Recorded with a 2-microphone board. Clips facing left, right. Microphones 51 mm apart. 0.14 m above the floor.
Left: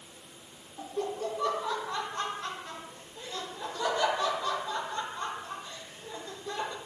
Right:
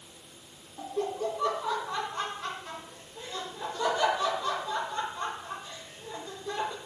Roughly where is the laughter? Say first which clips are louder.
Right 2 dB; centre.